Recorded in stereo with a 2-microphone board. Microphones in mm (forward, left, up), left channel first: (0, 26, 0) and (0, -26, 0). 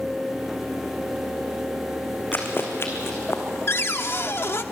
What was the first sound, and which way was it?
Running footsteps, 40° left (ahead or behind).